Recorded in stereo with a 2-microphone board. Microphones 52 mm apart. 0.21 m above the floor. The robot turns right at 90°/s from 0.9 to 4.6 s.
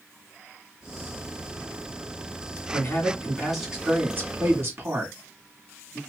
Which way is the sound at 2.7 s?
45° left (ahead or behind).